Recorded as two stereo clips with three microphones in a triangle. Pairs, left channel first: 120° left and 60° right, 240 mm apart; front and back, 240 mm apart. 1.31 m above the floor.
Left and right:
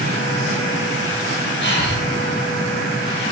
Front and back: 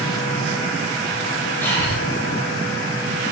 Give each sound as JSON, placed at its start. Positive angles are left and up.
{"t": 1.6, "sound": "breathing", "azimuth_deg": 80, "distance_m": 1.9}